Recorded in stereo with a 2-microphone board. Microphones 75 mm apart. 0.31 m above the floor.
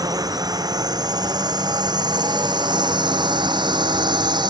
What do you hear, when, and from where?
0.0 s a drone: 60° right (ahead or behind); by 4.5 s 75° right (ahead or behind)